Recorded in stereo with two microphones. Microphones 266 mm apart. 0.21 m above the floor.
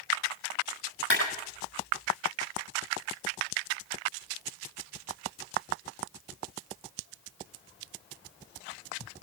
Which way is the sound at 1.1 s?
50° left (ahead or behind).